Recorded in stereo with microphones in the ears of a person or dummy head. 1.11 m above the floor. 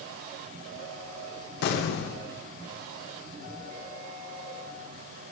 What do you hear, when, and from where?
1.6 s an explosion: 60° left (ahead or behind), 0.6 m